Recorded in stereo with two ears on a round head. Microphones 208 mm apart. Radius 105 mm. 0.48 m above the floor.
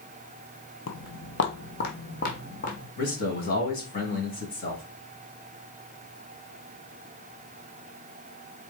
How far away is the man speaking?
About 3.5 m.